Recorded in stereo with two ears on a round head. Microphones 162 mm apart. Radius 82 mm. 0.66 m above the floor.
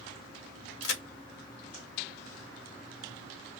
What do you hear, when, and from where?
0.8 s a crack: 85° left, 1.2 m